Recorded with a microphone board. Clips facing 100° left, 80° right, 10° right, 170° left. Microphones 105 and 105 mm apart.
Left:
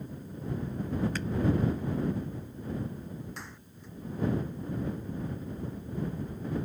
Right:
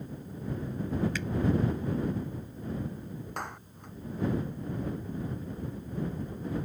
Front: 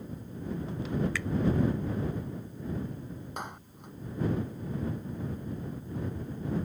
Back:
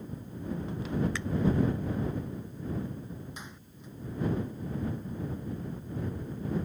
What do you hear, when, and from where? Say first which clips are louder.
1.1 s a finger snap: left 1 dB, front 1 dB; 115° left
3.4 s a clap: right 7 dB, front 6 dB; 45° right